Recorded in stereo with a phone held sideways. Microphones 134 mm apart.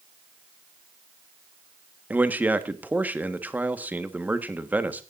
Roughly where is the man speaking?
Centre.